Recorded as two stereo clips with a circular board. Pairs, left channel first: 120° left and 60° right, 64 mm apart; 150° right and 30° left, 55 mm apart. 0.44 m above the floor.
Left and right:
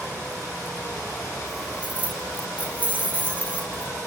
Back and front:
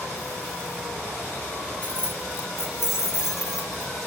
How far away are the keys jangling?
About 0.7 m.